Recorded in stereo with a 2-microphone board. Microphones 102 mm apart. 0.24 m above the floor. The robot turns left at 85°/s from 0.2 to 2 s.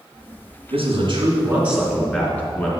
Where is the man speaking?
85° right, 3 m; by 2.7 s 165° left, 3 m.